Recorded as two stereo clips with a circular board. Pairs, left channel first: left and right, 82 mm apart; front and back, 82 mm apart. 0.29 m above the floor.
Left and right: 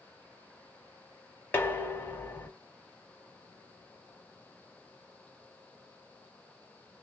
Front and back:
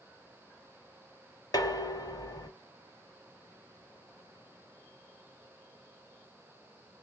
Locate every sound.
1.5 s dishes clattering: 30° left, 1.1 m